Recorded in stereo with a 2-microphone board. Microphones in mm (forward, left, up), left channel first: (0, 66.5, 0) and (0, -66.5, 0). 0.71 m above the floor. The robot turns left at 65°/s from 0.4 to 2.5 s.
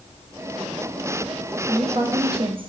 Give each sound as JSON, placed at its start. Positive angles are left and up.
{"t": 1.7, "sound": "a woman speaking", "azimuth_deg": -40, "distance_m": 0.5}